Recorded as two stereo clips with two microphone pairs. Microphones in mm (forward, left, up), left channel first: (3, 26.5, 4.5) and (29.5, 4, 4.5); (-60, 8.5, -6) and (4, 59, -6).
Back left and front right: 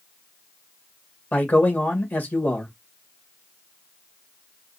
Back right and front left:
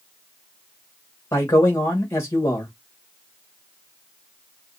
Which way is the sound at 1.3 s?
165° left.